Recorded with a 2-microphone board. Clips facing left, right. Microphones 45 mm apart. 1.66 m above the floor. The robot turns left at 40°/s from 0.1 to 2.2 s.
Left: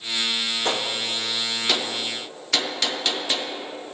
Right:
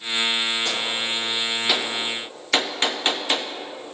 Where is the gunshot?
30° left (ahead or behind), 0.8 m; by 4.0 s 30° right (ahead or behind), 0.8 m.